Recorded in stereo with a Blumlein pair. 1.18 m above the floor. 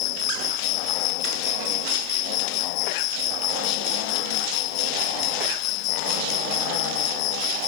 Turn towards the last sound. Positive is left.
turn(degrees=40)